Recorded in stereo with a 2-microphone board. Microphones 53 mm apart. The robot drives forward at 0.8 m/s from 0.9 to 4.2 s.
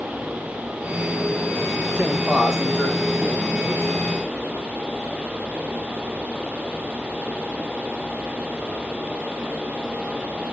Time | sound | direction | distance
1.9 | a man speaking | 20° right (ahead or behind) | 0.8 m